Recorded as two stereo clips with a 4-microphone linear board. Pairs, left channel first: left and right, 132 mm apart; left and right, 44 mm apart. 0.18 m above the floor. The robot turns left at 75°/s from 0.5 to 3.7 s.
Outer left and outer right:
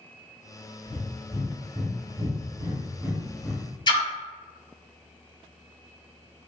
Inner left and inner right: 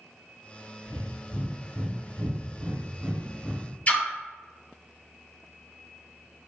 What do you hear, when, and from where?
0.9 s breathing: 5° left (ahead or behind), 0.7 m; by 3.7 s 15° left (ahead or behind), 0.7 m
3.9 s a splash: 35° left (ahead or behind), 0.5 m